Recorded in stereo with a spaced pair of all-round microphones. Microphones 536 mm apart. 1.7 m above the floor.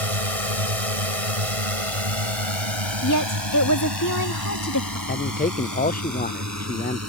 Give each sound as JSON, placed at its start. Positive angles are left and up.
{"t": 0.0, "sound": "a drone", "side_deg": -80}
{"t": 3.0, "sound": "a woman speaking", "side_deg": 35}
{"t": 5.1, "sound": "a man speaking", "side_deg": 15}